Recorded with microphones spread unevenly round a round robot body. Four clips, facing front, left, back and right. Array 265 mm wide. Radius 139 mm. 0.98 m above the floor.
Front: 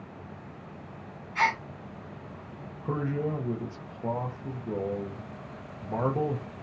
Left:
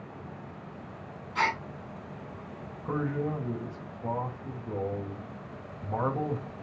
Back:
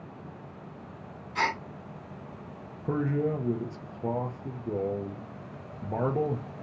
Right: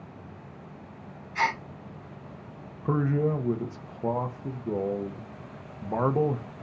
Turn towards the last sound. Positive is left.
turn(degrees=-105)